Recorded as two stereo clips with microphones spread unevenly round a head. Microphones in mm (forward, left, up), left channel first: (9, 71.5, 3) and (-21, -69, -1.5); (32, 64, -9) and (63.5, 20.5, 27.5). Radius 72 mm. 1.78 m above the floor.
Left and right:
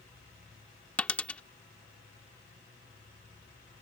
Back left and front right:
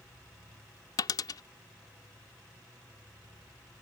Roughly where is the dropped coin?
Behind left.